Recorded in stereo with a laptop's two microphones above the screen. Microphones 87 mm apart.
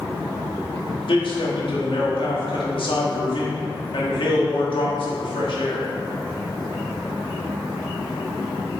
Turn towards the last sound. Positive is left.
turn(degrees=65)  # may be behind; listen again after turning